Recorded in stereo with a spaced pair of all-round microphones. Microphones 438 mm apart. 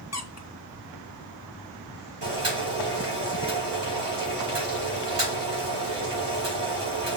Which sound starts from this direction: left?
A squeak, at 0.1 s.